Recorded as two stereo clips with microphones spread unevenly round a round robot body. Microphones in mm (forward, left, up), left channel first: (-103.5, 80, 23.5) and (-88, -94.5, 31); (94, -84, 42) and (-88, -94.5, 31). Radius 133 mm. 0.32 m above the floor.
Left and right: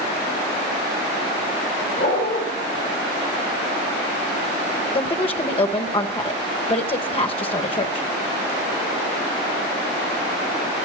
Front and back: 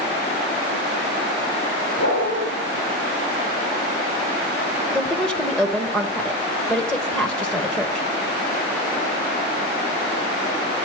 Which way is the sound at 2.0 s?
45° left.